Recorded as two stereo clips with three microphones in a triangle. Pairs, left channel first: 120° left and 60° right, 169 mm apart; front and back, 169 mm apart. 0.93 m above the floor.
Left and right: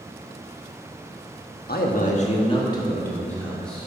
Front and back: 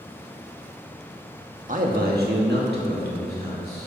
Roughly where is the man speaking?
Behind left.